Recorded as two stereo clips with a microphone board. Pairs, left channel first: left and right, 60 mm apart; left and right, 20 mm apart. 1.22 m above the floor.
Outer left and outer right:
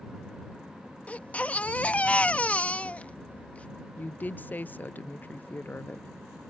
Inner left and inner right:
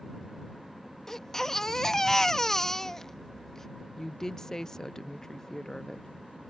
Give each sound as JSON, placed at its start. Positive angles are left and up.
{"t": 1.1, "sound": "a baby crying", "side_deg": 25}
{"t": 4.0, "sound": "a woman speaking", "side_deg": 30}